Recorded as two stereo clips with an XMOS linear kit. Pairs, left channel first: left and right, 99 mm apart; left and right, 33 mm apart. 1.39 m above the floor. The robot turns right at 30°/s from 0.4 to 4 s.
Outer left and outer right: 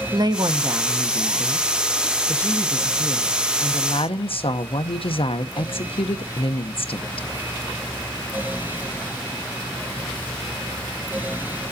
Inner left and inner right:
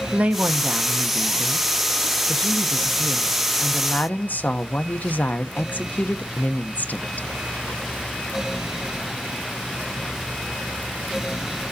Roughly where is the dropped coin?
No dropped coin in this recording.